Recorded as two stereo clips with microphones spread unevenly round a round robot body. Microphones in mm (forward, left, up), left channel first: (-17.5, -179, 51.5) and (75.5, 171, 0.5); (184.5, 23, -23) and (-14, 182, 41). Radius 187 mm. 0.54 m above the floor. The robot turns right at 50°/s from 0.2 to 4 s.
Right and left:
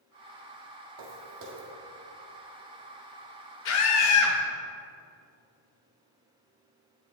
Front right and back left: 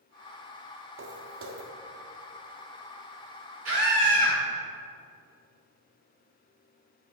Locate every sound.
1.0 s footsteps: 115° left, 1.3 m; by 1.7 s 150° left, 1.3 m
3.6 s a scream: 165° right, 1.3 m; by 4.4 s 145° right, 1.3 m